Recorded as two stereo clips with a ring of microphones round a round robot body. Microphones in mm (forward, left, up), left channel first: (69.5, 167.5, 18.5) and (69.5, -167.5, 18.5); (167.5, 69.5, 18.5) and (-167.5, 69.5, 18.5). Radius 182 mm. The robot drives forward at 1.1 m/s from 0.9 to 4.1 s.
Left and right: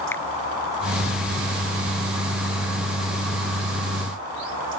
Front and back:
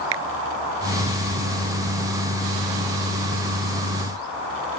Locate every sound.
0.1 s a finger snap: 175° left